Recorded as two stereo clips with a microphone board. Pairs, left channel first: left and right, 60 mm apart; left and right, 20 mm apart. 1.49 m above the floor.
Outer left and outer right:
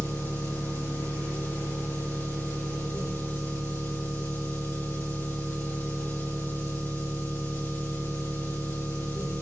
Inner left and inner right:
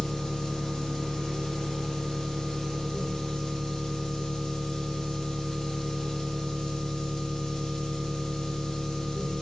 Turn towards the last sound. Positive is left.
turn(degrees=40)  # may be behind; listen again after turning